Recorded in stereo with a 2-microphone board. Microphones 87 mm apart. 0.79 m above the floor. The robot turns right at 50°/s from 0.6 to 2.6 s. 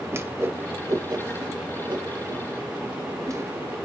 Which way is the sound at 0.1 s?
30° right (ahead or behind).